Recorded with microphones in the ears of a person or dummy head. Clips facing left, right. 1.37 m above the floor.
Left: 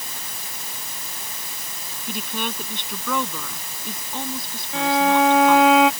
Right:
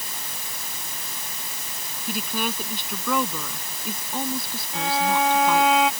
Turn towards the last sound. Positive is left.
turn(degrees=50)  # may be behind; listen again after turning